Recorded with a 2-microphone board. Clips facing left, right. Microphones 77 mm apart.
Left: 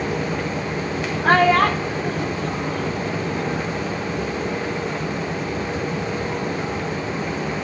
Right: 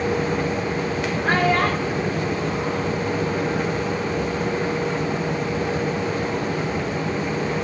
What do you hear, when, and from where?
1.2 s a child speaking: 75° left (ahead or behind), 0.9 m; by 3.6 s 55° left (ahead or behind), 2.5 m